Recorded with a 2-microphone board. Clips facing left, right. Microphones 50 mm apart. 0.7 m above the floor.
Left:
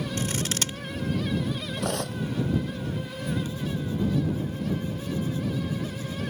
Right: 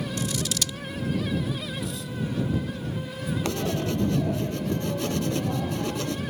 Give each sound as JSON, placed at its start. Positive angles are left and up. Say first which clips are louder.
{"t": 0.2, "sound": "scissors", "louder": "left 1 dB", "side_deg": 40}
{"t": 1.8, "sound": "cutlery clinking", "louder": "left 3 dB", "side_deg": 60}
{"t": 3.4, "sound": "writing", "louder": "right 4 dB", "side_deg": -80}